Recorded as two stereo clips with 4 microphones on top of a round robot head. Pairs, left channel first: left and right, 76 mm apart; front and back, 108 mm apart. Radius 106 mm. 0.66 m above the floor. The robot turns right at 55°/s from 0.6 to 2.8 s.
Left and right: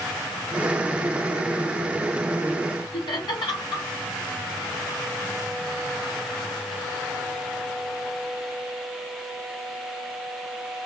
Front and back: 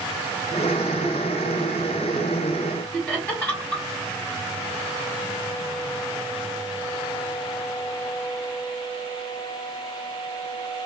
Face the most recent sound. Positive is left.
turn(degrees=75)